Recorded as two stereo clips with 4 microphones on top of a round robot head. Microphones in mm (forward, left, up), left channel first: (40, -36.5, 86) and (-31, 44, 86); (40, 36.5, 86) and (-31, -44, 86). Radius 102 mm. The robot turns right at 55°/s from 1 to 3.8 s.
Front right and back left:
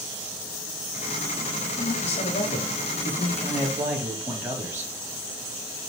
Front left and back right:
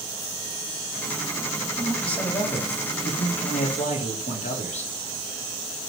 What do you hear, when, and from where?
1.8 s a man speaking: 50° right, 3 m; by 4.9 s 60° left, 3 m